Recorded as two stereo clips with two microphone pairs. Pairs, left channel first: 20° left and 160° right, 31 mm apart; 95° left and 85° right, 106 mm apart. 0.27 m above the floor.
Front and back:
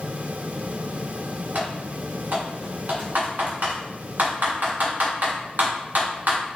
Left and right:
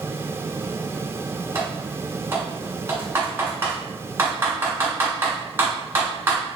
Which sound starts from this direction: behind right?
Typing on a keyboard, at 1.6 s.